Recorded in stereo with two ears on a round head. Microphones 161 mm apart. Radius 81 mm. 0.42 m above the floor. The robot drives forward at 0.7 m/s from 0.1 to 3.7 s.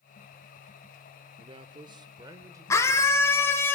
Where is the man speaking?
30° right (ahead or behind), 0.8 m; by 3.1 s 15° right (ahead or behind), 1.5 m.